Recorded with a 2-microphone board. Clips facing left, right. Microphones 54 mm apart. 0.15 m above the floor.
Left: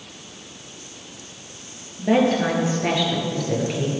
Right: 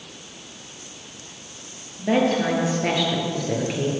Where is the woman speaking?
5° left (ahead or behind), 3 m; by 3.9 s 15° right (ahead or behind), 2.5 m.